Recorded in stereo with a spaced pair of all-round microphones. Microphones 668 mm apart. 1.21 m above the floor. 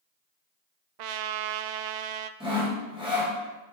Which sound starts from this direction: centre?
Sawing, at 2.4 s.